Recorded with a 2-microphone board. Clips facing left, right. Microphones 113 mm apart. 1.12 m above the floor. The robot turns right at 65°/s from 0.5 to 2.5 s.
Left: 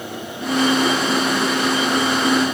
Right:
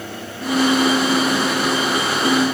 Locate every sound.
Only background noise.